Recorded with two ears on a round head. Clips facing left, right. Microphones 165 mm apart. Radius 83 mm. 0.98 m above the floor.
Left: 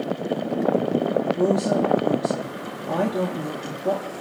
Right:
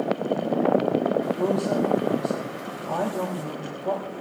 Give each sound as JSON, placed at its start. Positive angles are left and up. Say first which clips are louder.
{"t": 1.4, "sound": "a woman speaking", "louder": "left 3 dB", "side_deg": 40, "distance_m": 1.9}